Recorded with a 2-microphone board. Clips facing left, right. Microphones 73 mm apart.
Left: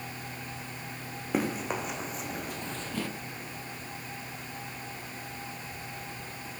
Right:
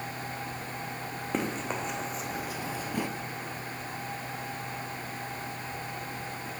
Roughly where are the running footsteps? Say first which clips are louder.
Left 2 dB; centre.